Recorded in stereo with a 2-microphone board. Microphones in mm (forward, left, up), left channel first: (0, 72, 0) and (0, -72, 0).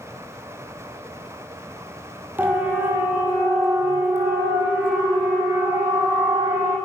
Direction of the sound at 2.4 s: 15° right (ahead or behind).